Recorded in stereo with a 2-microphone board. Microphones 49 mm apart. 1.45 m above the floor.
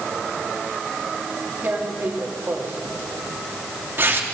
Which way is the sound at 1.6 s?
45° right (ahead or behind).